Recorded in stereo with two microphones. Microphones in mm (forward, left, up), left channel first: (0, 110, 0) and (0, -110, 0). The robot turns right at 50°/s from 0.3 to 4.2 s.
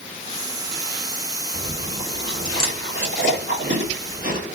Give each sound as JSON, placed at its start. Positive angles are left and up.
{"t": 1.5, "sound": "chewing", "side_deg": 0, "distance_m": 1.8}